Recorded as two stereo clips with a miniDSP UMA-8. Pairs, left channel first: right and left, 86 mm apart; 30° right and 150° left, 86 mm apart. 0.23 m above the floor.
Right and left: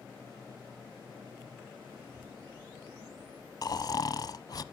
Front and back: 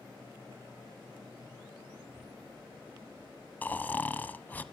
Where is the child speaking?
165° left, 5 m; by 3.5 s 155° left, 5 m.